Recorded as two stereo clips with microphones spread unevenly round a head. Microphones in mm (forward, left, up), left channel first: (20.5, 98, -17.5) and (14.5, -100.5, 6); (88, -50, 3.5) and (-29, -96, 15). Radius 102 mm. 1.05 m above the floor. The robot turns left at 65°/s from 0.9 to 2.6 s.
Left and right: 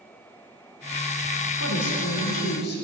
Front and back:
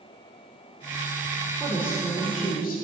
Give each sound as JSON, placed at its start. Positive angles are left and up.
{"t": 1.6, "sound": "a woman speaking", "azimuth_deg": 120, "distance_m": 3.5}